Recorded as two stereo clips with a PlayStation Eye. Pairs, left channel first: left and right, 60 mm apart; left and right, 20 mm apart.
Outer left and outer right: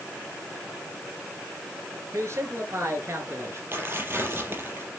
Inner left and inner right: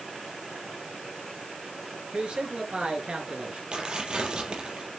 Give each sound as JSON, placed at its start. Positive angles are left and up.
{"t": 2.1, "sound": "a man speaking", "side_deg": -50, "distance_m": 5.0}
{"t": 3.7, "sound": "tearing paper", "side_deg": -40, "distance_m": 5.0}